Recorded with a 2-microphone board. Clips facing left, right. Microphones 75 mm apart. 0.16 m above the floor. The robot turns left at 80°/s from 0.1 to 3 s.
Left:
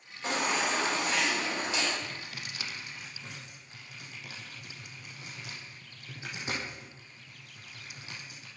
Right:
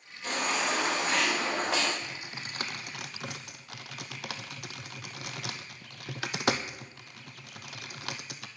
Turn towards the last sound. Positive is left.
turn(degrees=-80)